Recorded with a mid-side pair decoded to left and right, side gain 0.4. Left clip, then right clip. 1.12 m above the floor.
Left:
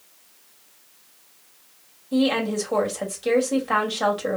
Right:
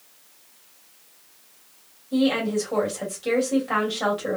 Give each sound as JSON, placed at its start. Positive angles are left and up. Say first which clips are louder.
{"t": 2.1, "sound": "a woman speaking", "louder": "even", "azimuth_deg": 30, "distance_m": 1.8}